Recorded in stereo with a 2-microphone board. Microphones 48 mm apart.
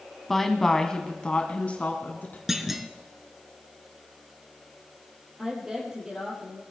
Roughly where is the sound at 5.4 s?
Centre.